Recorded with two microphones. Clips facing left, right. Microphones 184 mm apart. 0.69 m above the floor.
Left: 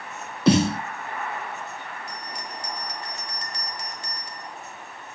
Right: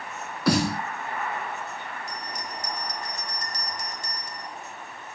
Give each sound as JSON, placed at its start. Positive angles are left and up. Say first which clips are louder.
{"t": 0.5, "sound": "a snare drum", "louder": "left 4 dB", "side_deg": 25, "distance_m": 1.7}
{"t": 2.1, "sound": "a bell", "louder": "right 1 dB", "side_deg": -50, "distance_m": 3.5}